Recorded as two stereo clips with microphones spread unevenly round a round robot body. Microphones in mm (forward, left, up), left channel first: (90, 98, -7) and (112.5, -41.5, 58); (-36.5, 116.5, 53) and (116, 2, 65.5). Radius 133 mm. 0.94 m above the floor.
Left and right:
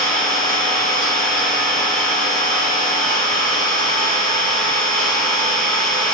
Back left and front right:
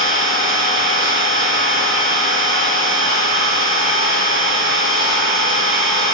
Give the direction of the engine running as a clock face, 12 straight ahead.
2 o'clock.